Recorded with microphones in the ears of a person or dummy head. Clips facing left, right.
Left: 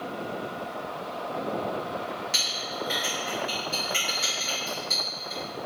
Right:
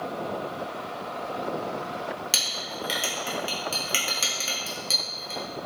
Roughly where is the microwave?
I don't hear a microwave.